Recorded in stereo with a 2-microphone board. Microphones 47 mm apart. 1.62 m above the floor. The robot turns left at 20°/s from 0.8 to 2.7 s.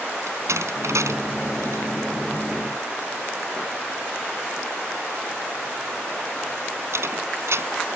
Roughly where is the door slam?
Right.